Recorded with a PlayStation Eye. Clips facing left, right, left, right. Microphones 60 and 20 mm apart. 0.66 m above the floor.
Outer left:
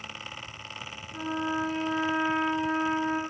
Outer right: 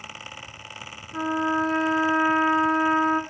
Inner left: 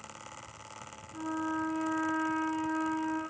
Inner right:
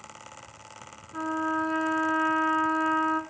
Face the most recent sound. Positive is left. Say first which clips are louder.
# outer right 6 dB, inner right 6 dB
turn(degrees=-50)  # may be behind; listen again after turning